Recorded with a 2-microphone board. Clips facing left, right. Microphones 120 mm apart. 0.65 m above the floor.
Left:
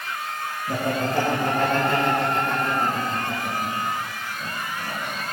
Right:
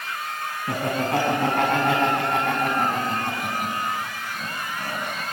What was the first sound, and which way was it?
Laughter, 75° right (ahead or behind).